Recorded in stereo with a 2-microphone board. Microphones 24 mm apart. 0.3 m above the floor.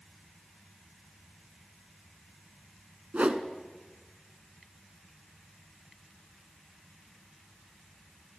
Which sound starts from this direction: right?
A whoosh, at 3.1 s.